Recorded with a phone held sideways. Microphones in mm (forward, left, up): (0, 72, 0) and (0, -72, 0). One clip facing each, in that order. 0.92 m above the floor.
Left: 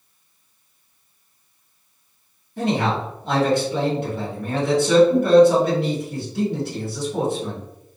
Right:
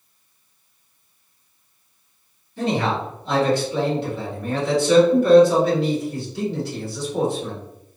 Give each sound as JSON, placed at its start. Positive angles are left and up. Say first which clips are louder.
{"t": 2.6, "sound": "a man speaking", "louder": "left 1 dB", "side_deg": 50, "distance_m": 1.4}